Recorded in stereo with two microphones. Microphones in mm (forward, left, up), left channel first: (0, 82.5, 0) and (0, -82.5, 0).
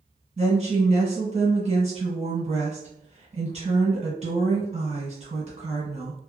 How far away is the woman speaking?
About 1.8 m.